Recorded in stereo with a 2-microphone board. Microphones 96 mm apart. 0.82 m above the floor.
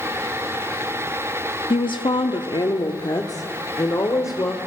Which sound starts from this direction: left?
A woman speaking, at 1.7 s.